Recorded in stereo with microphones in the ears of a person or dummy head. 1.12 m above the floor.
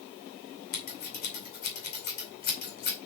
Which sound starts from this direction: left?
Scissors, at 0.7 s.